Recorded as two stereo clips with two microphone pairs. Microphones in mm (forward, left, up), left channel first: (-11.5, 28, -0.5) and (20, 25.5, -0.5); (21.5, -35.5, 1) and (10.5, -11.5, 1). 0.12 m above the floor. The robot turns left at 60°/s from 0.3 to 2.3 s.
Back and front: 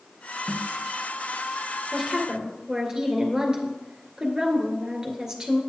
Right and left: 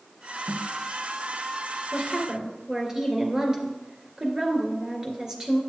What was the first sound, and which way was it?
A snare drum, 85° left.